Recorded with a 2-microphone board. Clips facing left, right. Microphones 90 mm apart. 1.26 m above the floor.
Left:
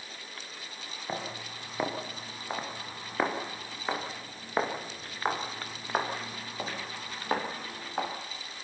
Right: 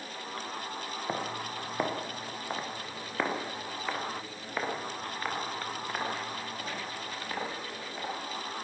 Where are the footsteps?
15° right (ahead or behind), 6.5 m; by 8.1 s 50° left (ahead or behind), 9.5 m.